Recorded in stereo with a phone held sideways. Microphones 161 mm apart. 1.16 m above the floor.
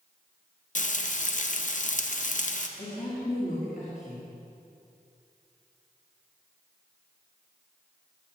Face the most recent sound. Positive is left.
turn(degrees=65)  # may be behind; listen again after turning